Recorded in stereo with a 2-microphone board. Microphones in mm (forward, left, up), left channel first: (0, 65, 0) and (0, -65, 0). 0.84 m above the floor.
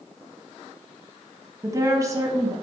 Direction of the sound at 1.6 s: 25° right (ahead or behind).